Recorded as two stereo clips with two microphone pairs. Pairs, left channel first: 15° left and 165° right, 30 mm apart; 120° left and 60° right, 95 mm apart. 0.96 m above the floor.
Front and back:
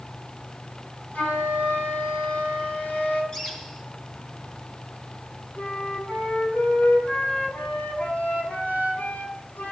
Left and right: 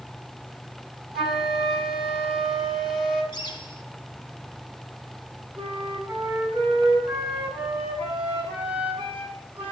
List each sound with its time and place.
1.1 s a flute: 25° left, 10 m
3.3 s a bird: 80° left, 3.5 m
5.6 s a flute: 10° left, 8.5 m